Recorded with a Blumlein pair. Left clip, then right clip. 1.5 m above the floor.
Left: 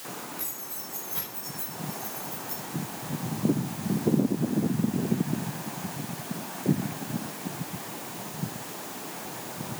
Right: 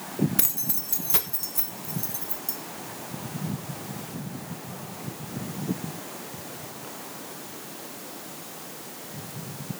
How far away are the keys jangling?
About 1.3 m.